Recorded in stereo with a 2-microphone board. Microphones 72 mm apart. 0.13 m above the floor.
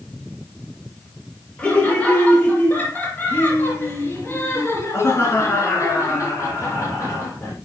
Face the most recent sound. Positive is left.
turn(degrees=45)  # may be behind; listen again after turning